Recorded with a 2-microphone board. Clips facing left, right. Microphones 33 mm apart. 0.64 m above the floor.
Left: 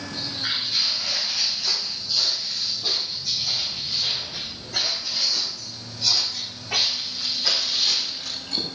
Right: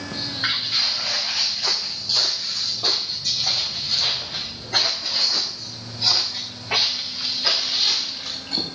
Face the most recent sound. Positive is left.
turn(degrees=-20)  # may be behind; listen again after turning